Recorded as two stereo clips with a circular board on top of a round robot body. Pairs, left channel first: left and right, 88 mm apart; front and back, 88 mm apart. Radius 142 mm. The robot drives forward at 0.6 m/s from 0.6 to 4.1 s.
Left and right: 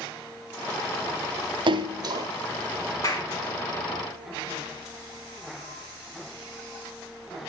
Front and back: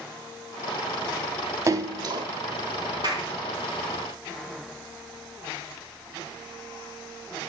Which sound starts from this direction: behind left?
A clap, at 3.0 s.